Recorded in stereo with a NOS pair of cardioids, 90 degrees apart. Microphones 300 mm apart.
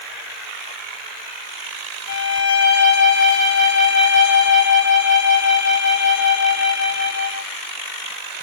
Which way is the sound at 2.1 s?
65° left.